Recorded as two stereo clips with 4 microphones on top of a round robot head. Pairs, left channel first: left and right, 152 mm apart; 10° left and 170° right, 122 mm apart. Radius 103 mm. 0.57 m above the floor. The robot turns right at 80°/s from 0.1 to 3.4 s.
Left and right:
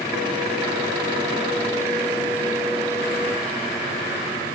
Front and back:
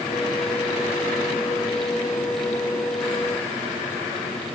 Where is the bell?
No bell in this recording.